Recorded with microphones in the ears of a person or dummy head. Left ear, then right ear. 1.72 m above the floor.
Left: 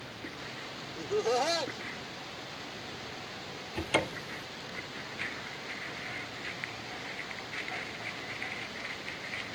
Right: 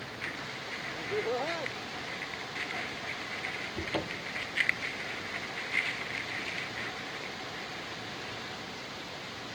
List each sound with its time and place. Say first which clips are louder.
1.0 s laughter: left 4 dB; 75° left (ahead or behind)
3.8 s a cupboard door: left 3 dB; 25° left (ahead or behind)